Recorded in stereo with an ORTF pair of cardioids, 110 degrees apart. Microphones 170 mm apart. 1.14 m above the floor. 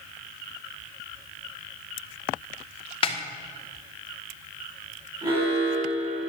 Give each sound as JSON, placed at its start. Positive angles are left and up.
{"t": 3.0, "sound": "a snare drum", "azimuth_deg": 30, "distance_m": 1.3}
{"t": 5.2, "sound": "an alarm", "azimuth_deg": -30, "distance_m": 5.0}